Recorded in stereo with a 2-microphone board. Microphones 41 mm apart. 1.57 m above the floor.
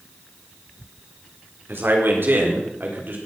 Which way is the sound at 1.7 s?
65° right (ahead or behind).